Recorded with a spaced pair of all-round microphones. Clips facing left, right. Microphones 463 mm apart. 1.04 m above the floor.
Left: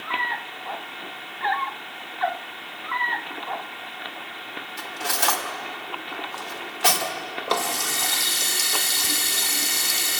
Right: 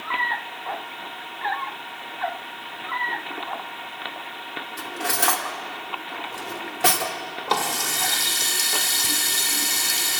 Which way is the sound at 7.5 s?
5° right (ahead or behind).